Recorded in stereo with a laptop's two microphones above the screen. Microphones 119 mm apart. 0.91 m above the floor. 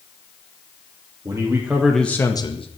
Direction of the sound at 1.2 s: 25° right (ahead or behind).